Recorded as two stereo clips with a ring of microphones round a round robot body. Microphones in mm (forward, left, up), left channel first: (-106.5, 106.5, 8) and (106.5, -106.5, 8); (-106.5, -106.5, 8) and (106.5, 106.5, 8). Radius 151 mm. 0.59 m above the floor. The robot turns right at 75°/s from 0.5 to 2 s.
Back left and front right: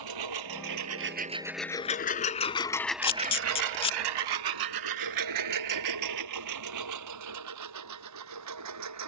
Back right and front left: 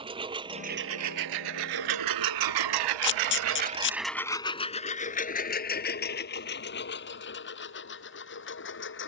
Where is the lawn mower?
30° right; by 9.1 s 80° right.